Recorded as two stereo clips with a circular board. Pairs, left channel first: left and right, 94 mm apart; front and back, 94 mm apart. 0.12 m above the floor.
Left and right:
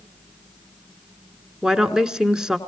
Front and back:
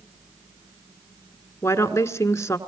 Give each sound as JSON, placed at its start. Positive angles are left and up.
{"t": 1.6, "sound": "a woman speaking", "azimuth_deg": -15, "distance_m": 1.3}